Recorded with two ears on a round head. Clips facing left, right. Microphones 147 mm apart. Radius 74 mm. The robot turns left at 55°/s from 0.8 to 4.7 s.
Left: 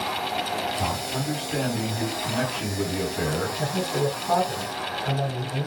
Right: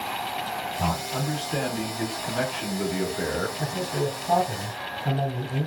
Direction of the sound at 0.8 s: 160° right.